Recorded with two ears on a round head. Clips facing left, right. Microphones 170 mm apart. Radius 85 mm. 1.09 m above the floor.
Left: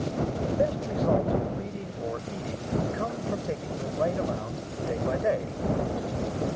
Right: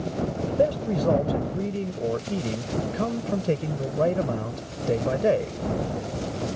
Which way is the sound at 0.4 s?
40° right (ahead or behind).